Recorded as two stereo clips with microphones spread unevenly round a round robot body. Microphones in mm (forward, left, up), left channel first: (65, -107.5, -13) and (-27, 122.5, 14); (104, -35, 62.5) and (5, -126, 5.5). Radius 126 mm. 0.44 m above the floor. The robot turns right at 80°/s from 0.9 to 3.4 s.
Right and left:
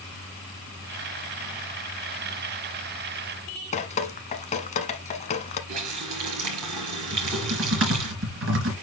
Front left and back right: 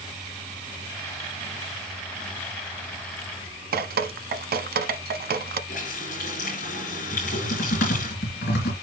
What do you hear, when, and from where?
3.7 s dripping: 135° right, 0.8 m
5.7 s a running tap: 95° left, 5.5 m
7.1 s typing on a keyboard: 70° left, 3.5 m